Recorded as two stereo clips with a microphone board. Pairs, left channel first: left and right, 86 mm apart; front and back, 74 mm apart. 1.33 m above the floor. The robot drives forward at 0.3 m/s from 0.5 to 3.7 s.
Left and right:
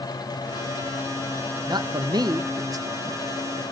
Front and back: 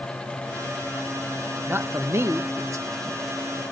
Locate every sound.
1.7 s a man speaking: 120° right, 1.0 m; by 3.2 s 140° right, 1.3 m